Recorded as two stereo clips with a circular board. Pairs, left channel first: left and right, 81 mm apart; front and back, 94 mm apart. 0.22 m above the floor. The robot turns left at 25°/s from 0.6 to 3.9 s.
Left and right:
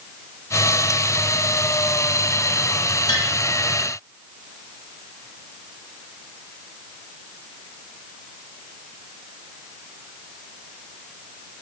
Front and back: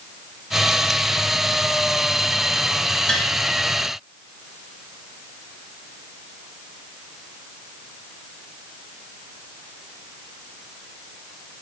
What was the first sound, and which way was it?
Tapping, 80° left.